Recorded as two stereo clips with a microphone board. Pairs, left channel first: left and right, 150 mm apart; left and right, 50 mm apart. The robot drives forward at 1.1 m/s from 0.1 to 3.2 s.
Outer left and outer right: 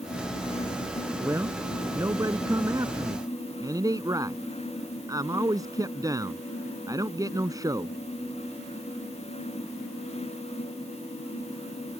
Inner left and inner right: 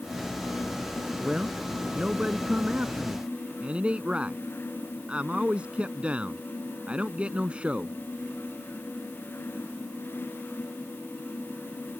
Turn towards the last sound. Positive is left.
turn(degrees=-25)  # may be behind; listen again after turning